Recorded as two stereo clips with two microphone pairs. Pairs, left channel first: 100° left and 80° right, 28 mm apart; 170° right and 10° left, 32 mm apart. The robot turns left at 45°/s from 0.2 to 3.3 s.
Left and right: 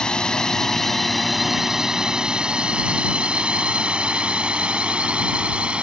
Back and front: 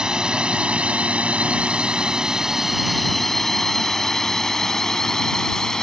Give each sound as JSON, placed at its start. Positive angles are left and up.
{"t": 0.0, "sound": "a drone", "azimuth_deg": 60}